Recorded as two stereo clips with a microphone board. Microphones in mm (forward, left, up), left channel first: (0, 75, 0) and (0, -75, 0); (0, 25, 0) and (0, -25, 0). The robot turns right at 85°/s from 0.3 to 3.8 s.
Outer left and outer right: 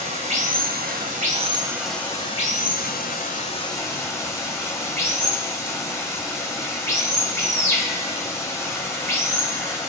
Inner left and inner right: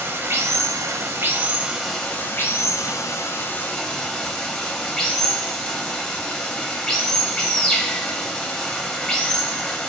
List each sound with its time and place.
0.0 s running water: 135° right, 1.2 m; by 9.9 s 160° left, 1.2 m